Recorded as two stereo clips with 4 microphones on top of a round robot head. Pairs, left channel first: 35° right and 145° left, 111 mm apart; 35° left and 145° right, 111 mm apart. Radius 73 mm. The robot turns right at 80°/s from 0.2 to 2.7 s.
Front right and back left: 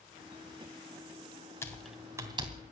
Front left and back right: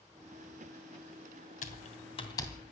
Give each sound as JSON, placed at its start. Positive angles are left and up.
{"t": 1.6, "sound": "typing on a keyboard", "azimuth_deg": 35, "distance_m": 2.5}